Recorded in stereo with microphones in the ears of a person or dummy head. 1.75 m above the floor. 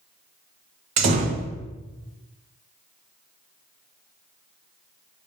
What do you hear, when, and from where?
1.0 s a door slam: 40° right (ahead or behind), 0.7 m